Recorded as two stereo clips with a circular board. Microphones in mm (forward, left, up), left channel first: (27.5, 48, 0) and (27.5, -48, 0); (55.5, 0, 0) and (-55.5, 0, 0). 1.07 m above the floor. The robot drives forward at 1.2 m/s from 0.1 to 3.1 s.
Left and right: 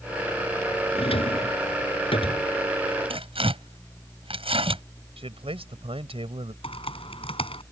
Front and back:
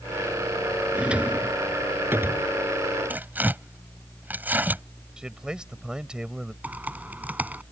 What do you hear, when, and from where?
0.9 s a drawer: 100° left; by 2.5 s 115° left
3.1 s tearing paper: 105° right
5.2 s a man speaking: 95° right
6.6 s typing on a keyboard: 105° left